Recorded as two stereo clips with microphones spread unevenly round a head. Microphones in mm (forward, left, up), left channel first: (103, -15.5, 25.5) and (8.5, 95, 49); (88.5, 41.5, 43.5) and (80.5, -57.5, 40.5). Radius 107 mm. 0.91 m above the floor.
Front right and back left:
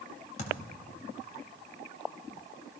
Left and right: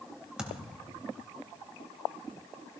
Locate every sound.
0.4 s a thud: 10° right, 2.5 m